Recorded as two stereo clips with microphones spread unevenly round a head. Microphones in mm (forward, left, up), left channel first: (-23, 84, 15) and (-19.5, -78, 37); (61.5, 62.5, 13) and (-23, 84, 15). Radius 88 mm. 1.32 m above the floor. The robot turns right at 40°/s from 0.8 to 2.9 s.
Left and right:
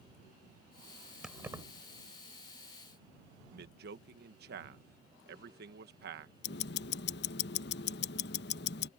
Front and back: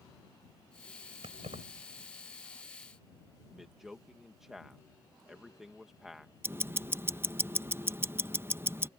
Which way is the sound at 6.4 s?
105° left.